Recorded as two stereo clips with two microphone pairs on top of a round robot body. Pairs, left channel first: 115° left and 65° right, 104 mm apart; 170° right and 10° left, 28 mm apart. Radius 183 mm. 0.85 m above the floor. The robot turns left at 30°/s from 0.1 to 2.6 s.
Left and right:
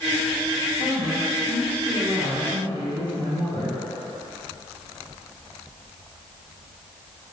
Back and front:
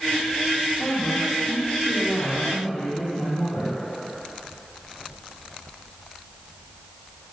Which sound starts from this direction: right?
A woman speaking, at 0.8 s.